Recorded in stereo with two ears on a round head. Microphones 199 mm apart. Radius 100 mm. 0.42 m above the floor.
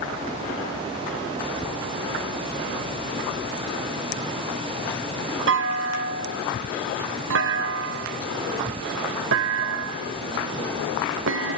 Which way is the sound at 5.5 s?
60° right (ahead or behind).